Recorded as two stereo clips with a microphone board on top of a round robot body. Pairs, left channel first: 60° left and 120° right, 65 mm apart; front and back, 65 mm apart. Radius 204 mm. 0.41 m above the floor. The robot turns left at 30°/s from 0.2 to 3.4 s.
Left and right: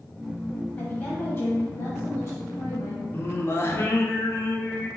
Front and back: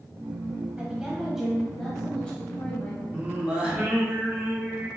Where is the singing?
115° left, 0.8 m; by 4.9 s 110° left, 0.8 m.